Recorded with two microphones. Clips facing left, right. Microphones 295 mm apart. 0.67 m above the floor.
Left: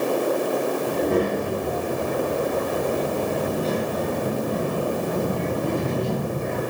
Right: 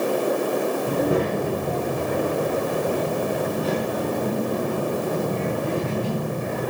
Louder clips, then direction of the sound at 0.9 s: Left 1 dB; 10° right (ahead or behind).